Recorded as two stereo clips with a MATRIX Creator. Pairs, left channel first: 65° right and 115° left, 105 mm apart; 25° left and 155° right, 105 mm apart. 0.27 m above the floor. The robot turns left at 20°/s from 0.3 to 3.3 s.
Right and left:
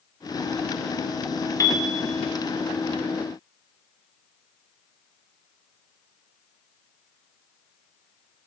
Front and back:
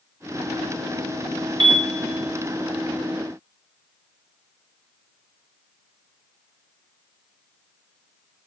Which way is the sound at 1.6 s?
125° right.